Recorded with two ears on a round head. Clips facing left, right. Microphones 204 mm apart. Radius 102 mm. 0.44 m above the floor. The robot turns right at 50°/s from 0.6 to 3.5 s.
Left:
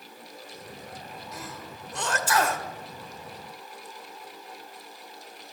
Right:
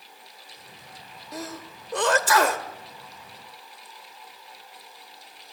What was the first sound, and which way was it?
A sneeze, 35° right (ahead or behind).